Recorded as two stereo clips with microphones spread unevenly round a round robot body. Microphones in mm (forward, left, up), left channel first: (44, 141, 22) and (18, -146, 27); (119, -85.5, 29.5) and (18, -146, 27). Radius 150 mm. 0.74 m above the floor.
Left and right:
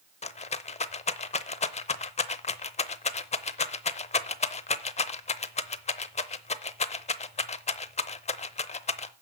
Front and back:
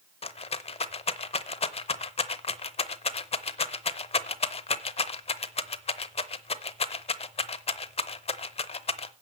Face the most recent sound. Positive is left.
turn(degrees=20)